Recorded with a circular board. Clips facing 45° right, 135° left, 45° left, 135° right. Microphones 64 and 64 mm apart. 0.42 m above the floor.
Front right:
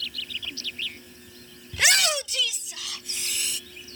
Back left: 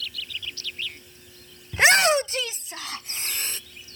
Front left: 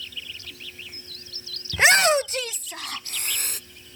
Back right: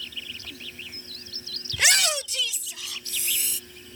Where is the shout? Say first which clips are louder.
Back left 6 dB, front left 7 dB; 90° left; by 3.6 s 80° left.